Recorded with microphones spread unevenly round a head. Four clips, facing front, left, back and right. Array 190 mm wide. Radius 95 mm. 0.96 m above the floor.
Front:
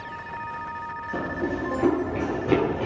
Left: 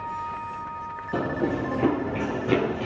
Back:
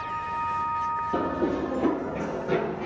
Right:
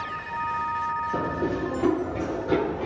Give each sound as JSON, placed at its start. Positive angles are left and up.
{"t": 1.1, "sound": "running footsteps", "azimuth_deg": 110, "distance_m": 1.2}